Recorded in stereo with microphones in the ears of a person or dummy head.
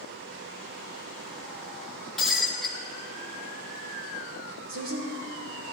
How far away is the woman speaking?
About 2.5 m.